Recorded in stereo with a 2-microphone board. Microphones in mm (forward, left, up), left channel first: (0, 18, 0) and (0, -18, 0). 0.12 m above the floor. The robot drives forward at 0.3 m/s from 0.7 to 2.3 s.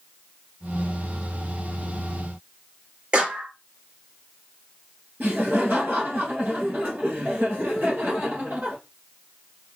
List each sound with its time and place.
3.1 s a clap: 30° right (ahead or behind), 2.5 m
5.2 s laughter: 50° right (ahead or behind), 2.5 m